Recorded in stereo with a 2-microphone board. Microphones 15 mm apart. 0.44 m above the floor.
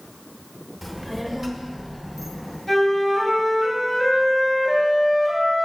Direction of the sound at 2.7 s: 10° left (ahead or behind).